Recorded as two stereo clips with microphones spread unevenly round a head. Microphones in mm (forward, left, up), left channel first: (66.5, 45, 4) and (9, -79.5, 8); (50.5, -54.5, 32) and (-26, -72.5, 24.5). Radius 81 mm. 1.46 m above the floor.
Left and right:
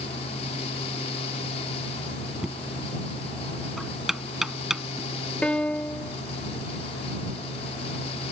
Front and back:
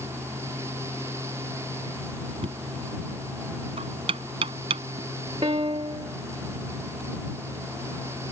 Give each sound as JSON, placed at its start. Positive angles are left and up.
{"t": 0.0, "sound": "a fan", "azimuth_deg": 120}
{"t": 2.4, "sound": "knocking", "azimuth_deg": 155}
{"t": 5.4, "sound": "a piano", "azimuth_deg": 150}